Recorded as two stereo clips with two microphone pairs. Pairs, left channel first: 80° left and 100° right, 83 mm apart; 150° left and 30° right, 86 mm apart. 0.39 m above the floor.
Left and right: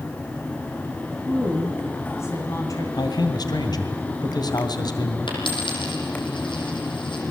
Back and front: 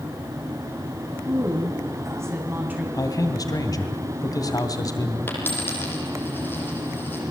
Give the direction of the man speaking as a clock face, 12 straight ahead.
8 o'clock.